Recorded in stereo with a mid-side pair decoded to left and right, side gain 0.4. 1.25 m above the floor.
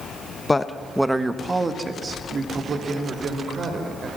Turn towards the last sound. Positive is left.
turn(degrees=-60)